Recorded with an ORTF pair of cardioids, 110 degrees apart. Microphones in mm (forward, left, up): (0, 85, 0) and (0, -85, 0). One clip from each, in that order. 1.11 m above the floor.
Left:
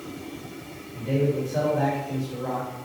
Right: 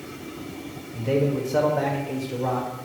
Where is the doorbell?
No doorbell in this recording.